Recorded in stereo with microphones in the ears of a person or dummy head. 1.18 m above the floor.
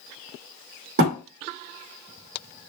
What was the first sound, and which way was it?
A thud, 60° right (ahead or behind).